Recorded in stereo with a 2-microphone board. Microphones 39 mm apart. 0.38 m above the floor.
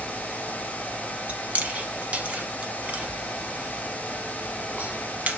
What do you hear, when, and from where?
1.3 s chewing: 40° right (ahead or behind), 0.9 m